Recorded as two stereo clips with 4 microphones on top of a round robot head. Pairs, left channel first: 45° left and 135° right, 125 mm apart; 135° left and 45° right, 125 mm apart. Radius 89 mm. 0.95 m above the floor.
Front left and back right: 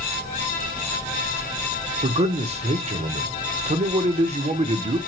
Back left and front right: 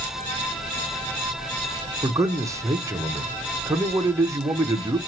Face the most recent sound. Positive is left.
turn(degrees=-110)